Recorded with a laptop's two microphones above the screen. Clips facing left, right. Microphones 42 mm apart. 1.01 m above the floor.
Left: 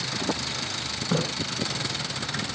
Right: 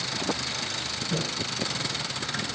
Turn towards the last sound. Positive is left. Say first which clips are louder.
# left 5 dB
turn(degrees=75)  # may be behind; listen again after turning